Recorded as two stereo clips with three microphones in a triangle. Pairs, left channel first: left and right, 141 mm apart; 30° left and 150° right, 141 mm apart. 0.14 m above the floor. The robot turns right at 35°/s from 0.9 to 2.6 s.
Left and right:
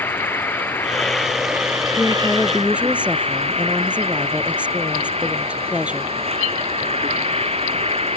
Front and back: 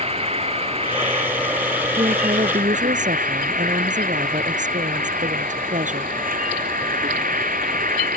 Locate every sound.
0.0 s an insect: 165° left; by 8.2 s 135° right
2.0 s a woman speaking: 165° left; by 6.1 s 170° right